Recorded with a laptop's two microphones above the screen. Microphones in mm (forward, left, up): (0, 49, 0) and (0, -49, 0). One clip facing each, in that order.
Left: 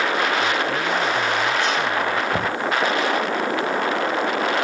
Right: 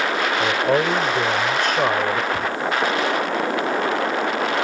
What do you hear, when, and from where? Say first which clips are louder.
0.4 s a man speaking: right 3 dB; 55° right (ahead or behind)
2.3 s knocking: left 1 dB; 55° left (ahead or behind)